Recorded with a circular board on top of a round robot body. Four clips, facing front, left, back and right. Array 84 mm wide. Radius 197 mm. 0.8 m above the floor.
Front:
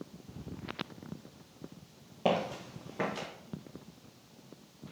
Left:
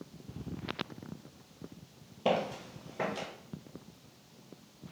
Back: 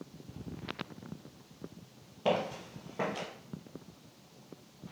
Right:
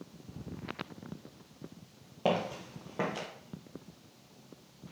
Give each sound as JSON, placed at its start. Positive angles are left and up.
{"t": 2.2, "sound": "footsteps", "azimuth_deg": -55, "distance_m": 1.1}